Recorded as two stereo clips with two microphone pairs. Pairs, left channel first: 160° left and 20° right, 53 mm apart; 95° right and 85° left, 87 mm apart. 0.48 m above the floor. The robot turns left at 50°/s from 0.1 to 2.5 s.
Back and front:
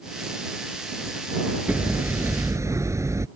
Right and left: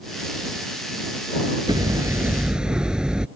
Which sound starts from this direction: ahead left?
Hammering, at 1.7 s.